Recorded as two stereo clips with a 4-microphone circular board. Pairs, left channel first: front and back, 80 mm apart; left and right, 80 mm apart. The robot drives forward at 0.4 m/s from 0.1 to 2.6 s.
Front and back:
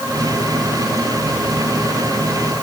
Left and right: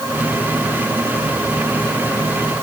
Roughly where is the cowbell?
I don't hear a cowbell.